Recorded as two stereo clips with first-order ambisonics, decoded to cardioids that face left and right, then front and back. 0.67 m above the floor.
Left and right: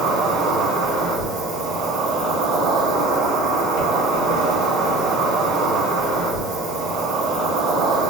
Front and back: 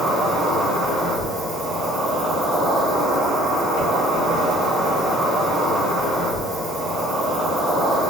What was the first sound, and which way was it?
An insect, 115° right.